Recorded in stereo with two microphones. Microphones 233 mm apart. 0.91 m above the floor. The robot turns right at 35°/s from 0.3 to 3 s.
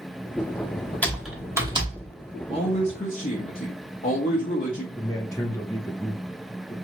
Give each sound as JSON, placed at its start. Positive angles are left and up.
{"t": 1.0, "sound": "typing on a keyboard", "side_deg": 5, "distance_m": 0.9}
{"t": 2.5, "sound": "a man speaking", "side_deg": 25, "distance_m": 0.7}
{"t": 5.0, "sound": "a man speaking", "side_deg": 15, "distance_m": 0.7}